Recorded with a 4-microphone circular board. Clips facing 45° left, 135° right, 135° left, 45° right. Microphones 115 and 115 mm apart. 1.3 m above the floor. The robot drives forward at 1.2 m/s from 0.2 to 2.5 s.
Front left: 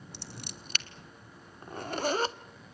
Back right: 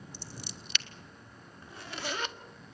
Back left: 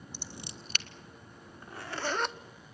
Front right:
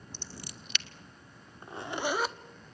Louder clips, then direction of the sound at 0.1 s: Front left 2 dB, back left 1 dB; 55° left.